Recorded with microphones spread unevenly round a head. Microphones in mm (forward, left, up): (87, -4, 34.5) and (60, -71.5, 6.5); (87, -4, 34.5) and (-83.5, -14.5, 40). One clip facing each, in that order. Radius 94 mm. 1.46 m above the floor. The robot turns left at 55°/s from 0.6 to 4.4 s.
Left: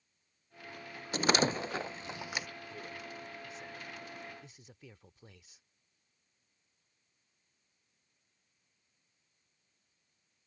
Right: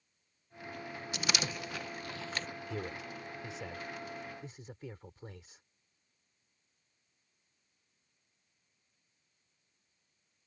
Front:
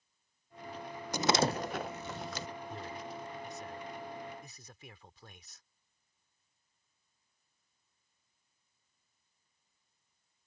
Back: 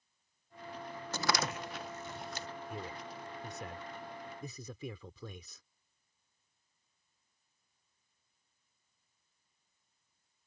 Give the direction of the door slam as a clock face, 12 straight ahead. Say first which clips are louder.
Left 9 dB, front 6 dB; 9 o'clock.